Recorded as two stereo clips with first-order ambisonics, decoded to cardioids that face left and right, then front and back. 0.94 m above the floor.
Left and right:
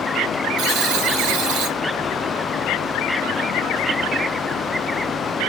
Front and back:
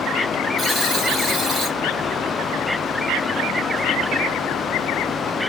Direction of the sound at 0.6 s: 100° right.